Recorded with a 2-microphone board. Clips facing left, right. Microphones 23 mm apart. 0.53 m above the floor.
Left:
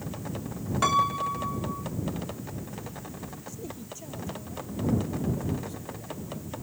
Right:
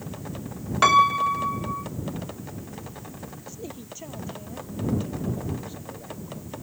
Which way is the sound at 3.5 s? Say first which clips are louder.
Right 3 dB; 25° right (ahead or behind).